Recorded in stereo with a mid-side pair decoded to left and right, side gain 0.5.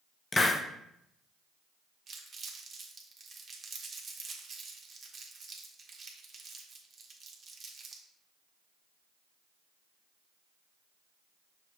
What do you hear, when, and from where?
0.3 s a hiss: 25° left, 0.5 m
2.1 s crumpling: 35° right, 1.1 m